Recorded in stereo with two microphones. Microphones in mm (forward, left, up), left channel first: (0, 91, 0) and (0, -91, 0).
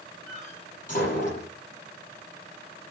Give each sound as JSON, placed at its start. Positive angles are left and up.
{"t": 0.3, "sound": "a door slam", "side_deg": 45, "distance_m": 10.0}